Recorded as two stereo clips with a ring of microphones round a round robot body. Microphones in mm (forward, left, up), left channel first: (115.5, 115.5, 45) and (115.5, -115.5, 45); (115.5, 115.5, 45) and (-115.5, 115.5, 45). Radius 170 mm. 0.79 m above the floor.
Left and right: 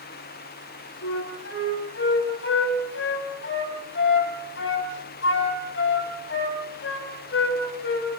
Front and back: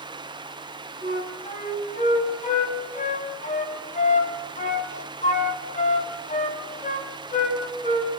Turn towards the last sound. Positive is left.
turn(degrees=55)